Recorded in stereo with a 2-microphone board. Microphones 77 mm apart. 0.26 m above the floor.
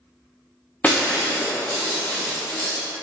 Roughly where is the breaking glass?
Left.